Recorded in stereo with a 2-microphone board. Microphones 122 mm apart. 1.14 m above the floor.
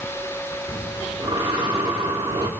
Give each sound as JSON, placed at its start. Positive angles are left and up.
{"t": 0.7, "sound": "breathing", "side_deg": -45, "distance_m": 2.0}